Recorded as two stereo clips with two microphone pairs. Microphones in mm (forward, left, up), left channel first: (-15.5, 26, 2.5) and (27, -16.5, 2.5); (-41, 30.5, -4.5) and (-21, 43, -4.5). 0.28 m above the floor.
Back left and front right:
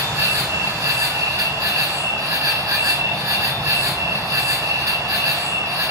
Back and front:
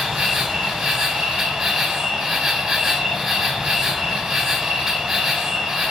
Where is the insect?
35° right, 1.0 m.